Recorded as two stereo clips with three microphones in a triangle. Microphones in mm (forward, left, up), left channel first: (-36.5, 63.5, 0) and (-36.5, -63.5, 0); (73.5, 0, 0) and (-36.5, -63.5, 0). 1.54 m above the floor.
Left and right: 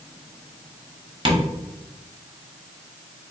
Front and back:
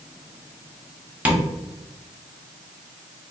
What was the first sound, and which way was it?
Tapping, 80° right.